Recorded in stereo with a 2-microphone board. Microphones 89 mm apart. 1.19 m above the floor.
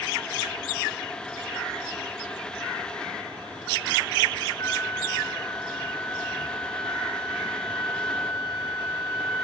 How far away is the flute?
About 3 m.